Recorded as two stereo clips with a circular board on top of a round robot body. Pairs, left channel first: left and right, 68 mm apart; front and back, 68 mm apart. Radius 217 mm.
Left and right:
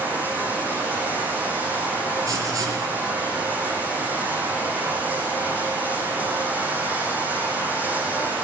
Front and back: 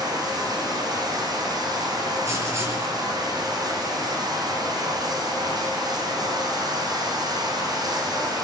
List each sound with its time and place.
0.0 s running water: 155° right, 8.5 m
2.2 s writing: 130° right, 6.5 m